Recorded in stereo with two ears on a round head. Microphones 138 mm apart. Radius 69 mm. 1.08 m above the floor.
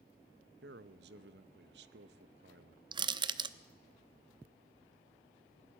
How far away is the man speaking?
About 0.9 m.